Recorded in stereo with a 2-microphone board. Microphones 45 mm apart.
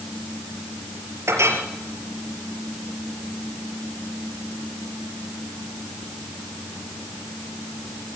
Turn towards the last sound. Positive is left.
turn(degrees=-75)  # may be behind; listen again after turning